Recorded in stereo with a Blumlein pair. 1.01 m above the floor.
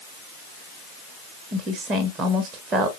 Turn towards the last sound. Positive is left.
turn(degrees=-25)